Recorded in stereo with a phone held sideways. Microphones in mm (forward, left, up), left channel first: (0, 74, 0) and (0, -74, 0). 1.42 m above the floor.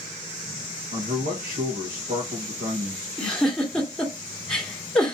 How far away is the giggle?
About 1.5 m.